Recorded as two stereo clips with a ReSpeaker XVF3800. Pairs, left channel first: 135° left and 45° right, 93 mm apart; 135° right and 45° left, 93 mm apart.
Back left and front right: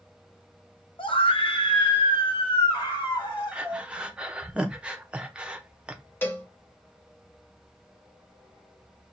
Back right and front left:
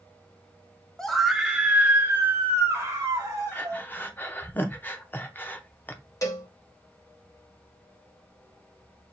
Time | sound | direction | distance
1.0 | a scream | 140° left | 0.8 m
3.5 | breathing | 110° right | 0.6 m
6.2 | a cowbell | 170° right | 0.9 m